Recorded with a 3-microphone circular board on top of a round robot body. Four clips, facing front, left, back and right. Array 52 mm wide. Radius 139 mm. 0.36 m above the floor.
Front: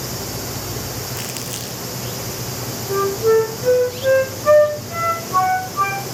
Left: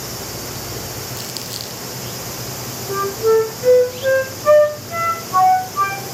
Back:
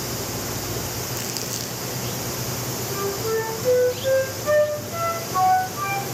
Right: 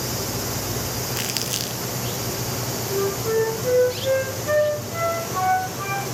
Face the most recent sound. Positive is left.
turn(degrees=55)